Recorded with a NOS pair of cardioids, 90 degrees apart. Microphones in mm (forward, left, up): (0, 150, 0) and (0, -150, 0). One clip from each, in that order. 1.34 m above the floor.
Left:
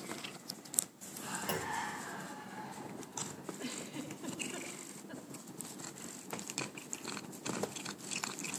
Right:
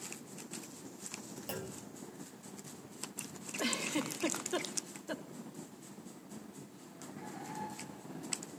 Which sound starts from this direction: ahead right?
A giggle, at 3.6 s.